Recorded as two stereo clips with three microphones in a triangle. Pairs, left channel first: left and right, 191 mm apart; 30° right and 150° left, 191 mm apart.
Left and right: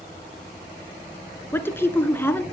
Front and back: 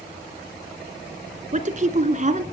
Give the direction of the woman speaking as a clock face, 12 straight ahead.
7 o'clock.